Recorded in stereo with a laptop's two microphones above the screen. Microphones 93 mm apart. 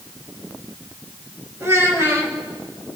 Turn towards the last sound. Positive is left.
turn(degrees=-30)  # may be behind; listen again after turning